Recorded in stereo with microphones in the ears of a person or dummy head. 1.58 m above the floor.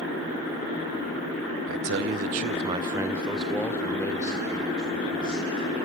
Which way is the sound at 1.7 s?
55° right (ahead or behind).